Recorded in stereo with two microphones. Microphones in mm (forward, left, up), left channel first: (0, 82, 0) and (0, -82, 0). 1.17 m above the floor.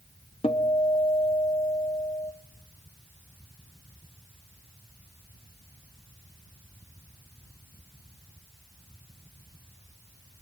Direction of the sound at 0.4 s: 35° left (ahead or behind).